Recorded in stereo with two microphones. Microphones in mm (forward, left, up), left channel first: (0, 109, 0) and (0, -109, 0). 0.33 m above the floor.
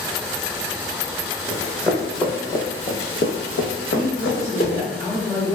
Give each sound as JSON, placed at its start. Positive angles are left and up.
{"t": 1.5, "sound": "running footsteps", "side_deg": -10, "distance_m": 1.1}
{"t": 3.9, "sound": "a woman speaking", "side_deg": 25, "distance_m": 1.2}